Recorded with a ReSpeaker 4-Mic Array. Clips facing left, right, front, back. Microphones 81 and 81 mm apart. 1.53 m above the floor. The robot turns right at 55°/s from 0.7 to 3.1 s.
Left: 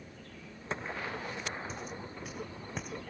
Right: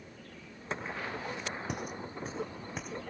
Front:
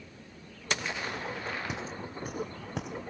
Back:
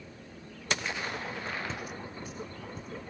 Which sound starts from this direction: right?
Footsteps, at 1.7 s.